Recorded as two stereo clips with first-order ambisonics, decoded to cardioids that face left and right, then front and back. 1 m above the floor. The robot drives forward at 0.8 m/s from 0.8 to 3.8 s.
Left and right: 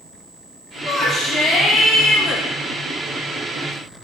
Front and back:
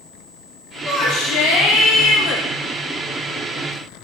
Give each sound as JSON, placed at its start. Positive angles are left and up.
{"t": 0.8, "sound": "a shout", "azimuth_deg": 15, "distance_m": 2.0}